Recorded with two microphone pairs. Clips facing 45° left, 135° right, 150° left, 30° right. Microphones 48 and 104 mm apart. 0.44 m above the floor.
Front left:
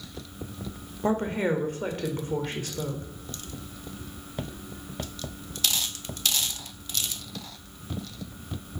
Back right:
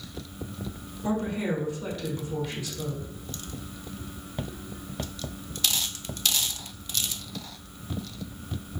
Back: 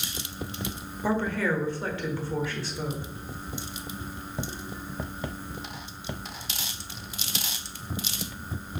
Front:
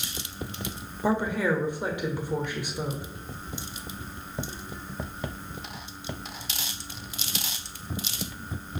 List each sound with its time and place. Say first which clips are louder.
1.0 s a woman speaking: front left 3 dB, front 1 dB; 35° left, 1.3 m